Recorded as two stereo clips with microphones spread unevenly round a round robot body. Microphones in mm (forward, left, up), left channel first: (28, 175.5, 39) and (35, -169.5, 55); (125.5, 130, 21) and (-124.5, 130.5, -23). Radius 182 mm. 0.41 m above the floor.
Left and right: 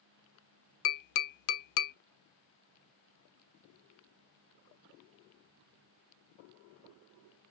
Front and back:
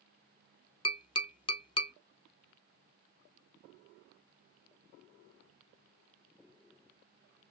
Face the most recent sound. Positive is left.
turn(degrees=70)